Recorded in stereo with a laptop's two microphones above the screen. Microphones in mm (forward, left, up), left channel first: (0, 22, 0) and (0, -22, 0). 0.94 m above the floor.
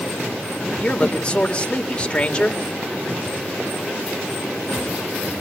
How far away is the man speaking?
About 2.5 m.